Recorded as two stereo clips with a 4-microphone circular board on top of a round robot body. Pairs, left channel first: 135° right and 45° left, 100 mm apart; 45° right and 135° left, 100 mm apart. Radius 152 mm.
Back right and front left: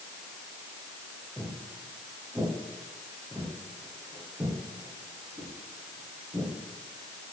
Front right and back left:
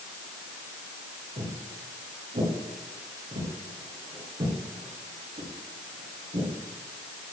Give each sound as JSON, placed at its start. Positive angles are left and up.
{"t": 1.4, "sound": "footsteps", "azimuth_deg": 120, "distance_m": 6.5}